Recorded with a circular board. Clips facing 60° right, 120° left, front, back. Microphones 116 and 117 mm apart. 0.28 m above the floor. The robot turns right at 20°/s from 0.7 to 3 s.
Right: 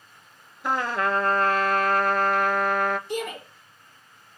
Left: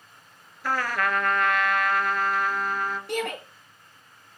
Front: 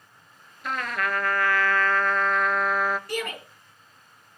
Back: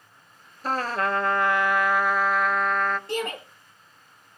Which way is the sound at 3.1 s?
115° left.